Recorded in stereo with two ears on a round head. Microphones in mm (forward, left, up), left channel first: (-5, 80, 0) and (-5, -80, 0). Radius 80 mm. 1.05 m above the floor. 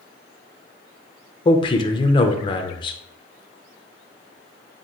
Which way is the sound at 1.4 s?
25° left (ahead or behind).